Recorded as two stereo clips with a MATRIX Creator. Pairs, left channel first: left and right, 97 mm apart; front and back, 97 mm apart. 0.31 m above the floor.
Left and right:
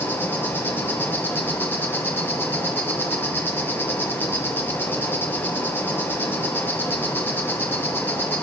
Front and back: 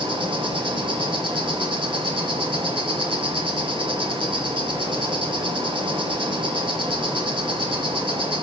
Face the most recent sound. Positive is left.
turn(degrees=155)